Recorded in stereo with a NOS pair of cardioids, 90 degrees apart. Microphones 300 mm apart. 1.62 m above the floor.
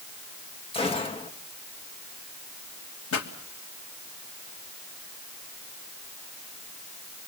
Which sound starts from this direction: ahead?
A gunshot, at 0.7 s.